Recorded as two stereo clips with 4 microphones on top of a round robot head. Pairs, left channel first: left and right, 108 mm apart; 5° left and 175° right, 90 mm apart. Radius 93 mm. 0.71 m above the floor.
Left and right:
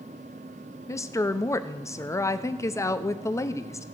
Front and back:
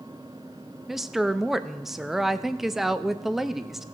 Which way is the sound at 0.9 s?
105° left.